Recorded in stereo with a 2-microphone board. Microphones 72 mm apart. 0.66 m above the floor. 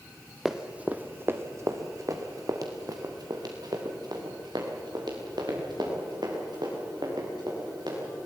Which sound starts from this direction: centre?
Running footsteps, at 0.5 s.